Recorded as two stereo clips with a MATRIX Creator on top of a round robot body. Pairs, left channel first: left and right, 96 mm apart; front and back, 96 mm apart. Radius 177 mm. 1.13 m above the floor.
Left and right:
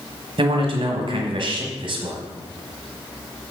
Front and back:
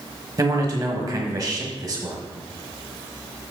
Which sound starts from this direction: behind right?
A man speaking, at 0.4 s.